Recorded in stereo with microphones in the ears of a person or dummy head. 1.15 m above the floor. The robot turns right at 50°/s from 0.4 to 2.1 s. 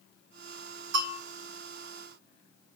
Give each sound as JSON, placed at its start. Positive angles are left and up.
{"t": 0.9, "sound": "a bell", "side_deg": -60, "distance_m": 3.0}